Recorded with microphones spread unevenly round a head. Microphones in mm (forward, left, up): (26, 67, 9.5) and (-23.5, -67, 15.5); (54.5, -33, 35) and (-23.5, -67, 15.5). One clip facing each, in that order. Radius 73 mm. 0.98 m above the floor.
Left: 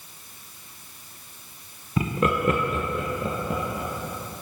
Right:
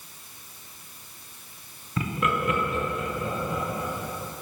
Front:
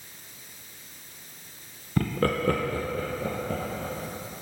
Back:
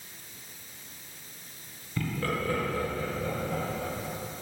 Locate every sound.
2.0 s laughter: 25° left, 0.5 m; by 4.4 s 50° left, 1.5 m